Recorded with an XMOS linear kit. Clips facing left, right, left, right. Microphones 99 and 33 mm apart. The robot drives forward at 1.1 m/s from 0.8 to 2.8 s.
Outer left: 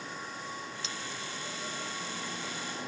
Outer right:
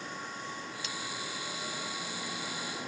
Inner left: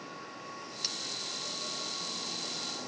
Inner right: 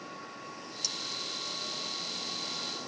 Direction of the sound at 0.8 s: 30° left (ahead or behind).